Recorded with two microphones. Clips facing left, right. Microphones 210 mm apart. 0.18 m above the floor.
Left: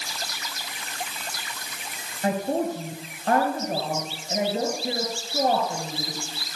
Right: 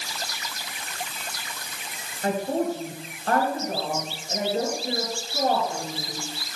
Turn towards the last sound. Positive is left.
turn(degrees=15)  # may be behind; listen again after turning